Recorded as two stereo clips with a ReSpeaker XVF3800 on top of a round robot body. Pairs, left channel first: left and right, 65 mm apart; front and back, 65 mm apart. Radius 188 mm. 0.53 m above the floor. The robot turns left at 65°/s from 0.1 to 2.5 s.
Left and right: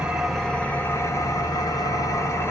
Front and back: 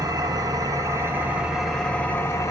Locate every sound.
0.0 s an engine running: 165° right, 1.3 m; by 2.5 s 40° left, 1.3 m